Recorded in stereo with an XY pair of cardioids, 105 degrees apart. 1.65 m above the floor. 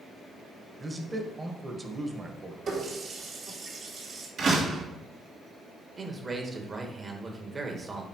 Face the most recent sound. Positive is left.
turn(degrees=-35)